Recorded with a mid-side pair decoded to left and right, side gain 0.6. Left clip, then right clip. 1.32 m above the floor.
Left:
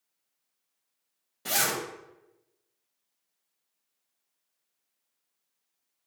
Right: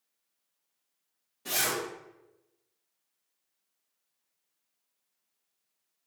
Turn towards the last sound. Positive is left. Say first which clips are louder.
# left 2 dB
turn(degrees=45)